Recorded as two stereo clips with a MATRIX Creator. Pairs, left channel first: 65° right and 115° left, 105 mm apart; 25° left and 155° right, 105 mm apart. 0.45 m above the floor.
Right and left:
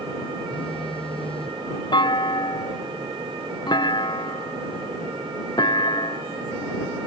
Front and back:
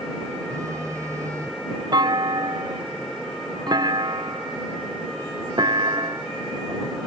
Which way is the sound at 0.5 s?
95° right.